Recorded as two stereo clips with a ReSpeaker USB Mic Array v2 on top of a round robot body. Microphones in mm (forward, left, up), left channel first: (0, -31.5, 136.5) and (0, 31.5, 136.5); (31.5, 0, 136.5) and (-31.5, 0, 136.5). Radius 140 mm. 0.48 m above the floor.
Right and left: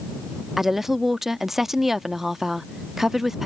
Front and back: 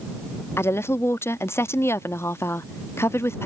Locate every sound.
0.6 s a woman speaking: 5° left